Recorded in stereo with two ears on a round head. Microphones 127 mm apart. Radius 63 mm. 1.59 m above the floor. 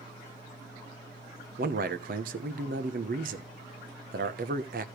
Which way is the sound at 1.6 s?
65° right (ahead or behind).